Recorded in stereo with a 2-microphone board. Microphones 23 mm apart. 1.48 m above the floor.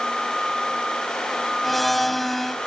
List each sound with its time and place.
1.6 s a blender: 5° left (ahead or behind)